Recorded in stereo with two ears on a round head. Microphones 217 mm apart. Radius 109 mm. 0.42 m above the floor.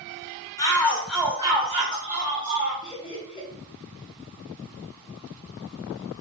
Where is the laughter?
20° left (ahead or behind), 1.2 m.